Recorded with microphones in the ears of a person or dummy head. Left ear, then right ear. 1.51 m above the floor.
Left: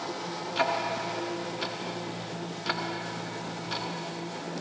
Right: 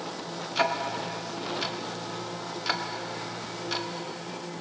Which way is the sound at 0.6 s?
10° right (ahead or behind).